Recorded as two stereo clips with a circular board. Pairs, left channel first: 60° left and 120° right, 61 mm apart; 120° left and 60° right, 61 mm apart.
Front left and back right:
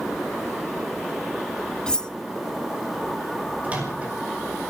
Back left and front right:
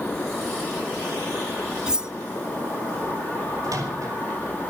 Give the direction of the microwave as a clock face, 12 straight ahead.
2 o'clock.